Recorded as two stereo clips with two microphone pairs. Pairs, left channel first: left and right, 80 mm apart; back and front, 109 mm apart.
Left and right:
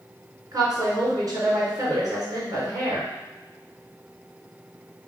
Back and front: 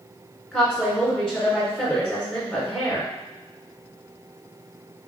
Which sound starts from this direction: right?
A woman speaking, at 0.5 s.